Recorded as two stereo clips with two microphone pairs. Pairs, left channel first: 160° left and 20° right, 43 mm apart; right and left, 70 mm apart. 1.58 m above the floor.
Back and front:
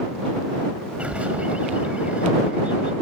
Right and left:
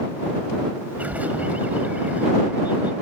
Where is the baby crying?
No baby crying in this recording.